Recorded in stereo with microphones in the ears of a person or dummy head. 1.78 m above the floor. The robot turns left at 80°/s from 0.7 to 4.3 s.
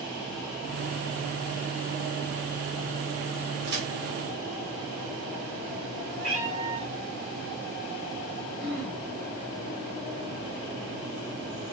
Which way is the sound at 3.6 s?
65° right (ahead or behind).